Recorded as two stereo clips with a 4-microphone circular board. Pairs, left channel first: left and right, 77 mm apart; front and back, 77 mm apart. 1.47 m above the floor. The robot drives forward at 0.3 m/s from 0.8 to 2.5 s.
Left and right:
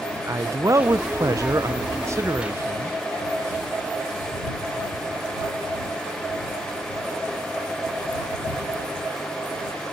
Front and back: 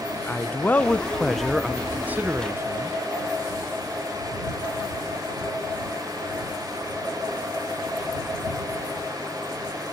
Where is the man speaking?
60° right, 0.5 m; by 3.0 s 135° right, 0.6 m.